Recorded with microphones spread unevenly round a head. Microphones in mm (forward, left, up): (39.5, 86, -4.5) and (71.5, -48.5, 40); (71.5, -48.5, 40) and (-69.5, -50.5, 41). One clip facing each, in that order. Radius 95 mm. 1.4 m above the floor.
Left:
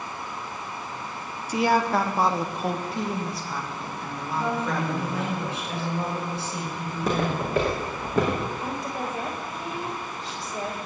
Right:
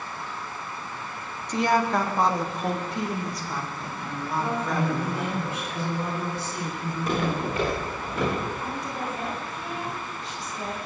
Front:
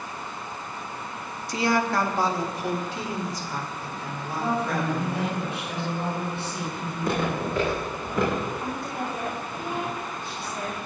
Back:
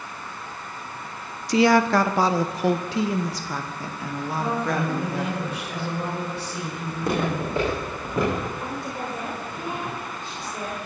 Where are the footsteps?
115° left, 6.5 m; by 8.4 s 110° left, 7 m.